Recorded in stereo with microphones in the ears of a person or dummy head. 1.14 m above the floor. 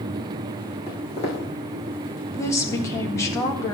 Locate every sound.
0.9 s footsteps: 35° left (ahead or behind), 4 m
2.4 s a woman speaking: 20° left (ahead or behind), 1.6 m